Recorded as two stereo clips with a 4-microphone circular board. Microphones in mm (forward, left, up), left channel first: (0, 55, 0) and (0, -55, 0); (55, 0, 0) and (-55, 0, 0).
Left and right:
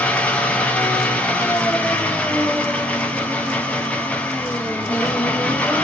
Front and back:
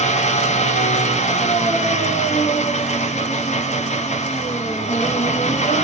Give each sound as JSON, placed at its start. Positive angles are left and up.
{"t": 0.0, "sound": "an engine running", "azimuth_deg": 10, "distance_m": 0.7}